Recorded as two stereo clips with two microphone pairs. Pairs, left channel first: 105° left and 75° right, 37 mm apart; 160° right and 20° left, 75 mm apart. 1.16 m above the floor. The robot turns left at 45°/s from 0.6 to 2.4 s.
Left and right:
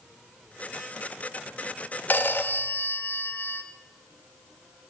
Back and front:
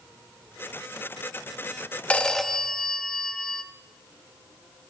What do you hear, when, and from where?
2.1 s a phone ringing: 130° left, 0.7 m; by 3.6 s 115° left, 0.7 m